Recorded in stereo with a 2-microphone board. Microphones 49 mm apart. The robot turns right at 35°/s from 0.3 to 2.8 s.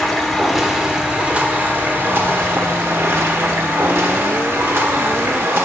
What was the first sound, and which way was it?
Running water, straight behind.